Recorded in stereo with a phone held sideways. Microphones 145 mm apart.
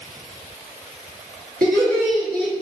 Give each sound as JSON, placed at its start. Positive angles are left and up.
{"t": 1.6, "sound": "laughter", "side_deg": -85, "distance_m": 1.2}